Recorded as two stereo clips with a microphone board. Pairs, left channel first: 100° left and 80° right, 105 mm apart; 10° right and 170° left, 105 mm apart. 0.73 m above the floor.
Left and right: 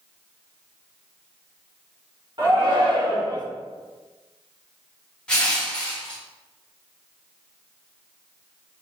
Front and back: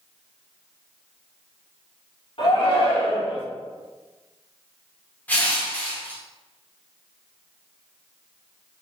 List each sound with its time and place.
2.4 s a shout: 40° right, 1.7 m; by 3.5 s 35° right, 1.0 m
5.3 s crushing: 35° left, 1.1 m